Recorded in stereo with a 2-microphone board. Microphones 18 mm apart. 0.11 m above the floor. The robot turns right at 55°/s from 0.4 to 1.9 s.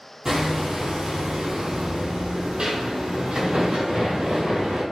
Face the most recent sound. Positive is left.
turn(degrees=-75)